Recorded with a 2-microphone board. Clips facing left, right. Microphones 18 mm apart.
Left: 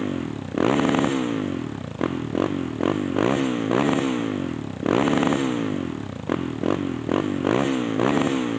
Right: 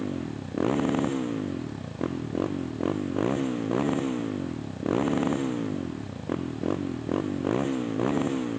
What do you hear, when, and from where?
0.0 s a motorcycle: 35° left (ahead or behind)